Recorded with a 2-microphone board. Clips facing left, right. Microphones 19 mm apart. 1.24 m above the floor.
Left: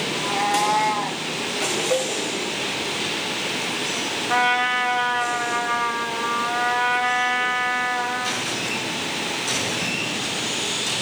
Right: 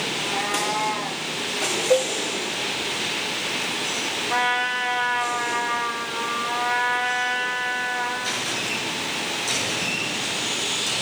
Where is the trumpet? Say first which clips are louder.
Left 3 dB; 80° left, 2 m.